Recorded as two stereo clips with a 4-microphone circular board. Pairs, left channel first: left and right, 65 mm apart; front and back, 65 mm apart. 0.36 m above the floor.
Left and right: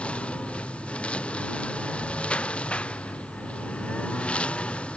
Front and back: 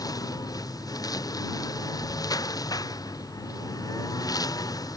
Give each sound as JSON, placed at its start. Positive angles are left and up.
{"t": 0.0, "sound": "a lawn mower", "azimuth_deg": 15}